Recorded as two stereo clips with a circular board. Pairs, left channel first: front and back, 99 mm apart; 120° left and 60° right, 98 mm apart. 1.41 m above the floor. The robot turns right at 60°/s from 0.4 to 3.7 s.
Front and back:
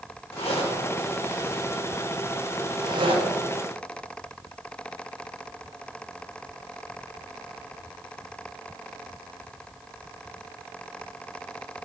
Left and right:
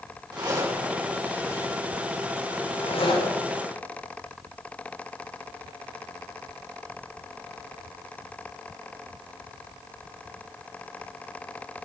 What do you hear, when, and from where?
0.3 s a zipper: 15° right, 5 m; by 3.4 s 165° left, 5 m